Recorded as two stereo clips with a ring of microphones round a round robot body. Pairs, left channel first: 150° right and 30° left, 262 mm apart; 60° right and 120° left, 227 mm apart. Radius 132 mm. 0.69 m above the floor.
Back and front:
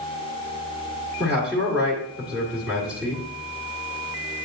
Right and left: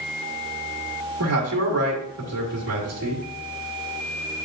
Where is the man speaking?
115° left, 1.8 m.